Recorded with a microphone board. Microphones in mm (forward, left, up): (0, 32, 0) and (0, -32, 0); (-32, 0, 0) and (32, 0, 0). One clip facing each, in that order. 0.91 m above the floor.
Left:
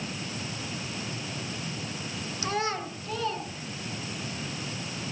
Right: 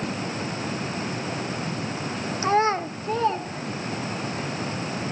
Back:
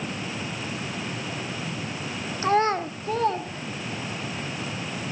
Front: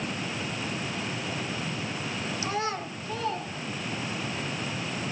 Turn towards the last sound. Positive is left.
turn(degrees=-140)